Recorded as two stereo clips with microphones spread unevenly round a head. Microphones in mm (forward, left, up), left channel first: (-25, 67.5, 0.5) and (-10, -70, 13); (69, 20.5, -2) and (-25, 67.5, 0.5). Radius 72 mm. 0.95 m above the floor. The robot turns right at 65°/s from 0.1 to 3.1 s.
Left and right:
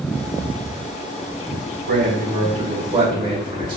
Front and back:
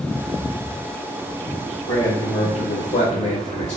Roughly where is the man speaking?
Right.